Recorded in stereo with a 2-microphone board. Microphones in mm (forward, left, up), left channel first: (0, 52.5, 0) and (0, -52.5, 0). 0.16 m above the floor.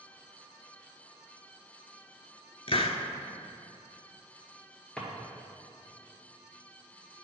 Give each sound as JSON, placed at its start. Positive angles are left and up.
{"t": 2.7, "sound": "a hiss", "side_deg": 60, "distance_m": 0.6}
{"t": 5.0, "sound": "a drawer", "side_deg": 5, "distance_m": 1.7}